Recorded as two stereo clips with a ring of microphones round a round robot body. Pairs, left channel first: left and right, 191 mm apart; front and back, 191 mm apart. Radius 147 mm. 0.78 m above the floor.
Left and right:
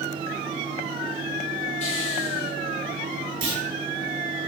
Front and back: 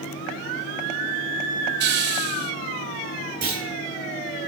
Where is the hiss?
160° left, 0.6 m.